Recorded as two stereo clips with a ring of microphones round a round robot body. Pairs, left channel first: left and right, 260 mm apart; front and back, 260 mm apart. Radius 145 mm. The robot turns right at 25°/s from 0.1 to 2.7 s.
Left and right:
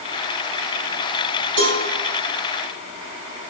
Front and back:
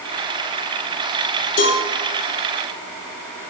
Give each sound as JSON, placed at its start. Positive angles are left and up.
{"t": 1.6, "sound": "a cowbell", "azimuth_deg": -55, "distance_m": 5.5}